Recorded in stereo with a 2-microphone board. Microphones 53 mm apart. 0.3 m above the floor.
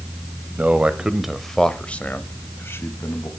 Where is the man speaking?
30° right (ahead or behind), 1.1 m; by 3.3 s 60° left (ahead or behind), 1.5 m.